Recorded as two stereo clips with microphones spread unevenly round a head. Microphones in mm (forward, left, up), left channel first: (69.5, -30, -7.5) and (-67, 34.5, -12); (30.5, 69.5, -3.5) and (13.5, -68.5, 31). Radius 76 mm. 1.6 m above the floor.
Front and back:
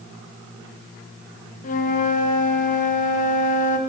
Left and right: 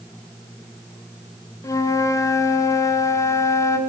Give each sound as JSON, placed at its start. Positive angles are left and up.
{"t": 1.6, "sound": "a flute", "azimuth_deg": 15, "distance_m": 1.2}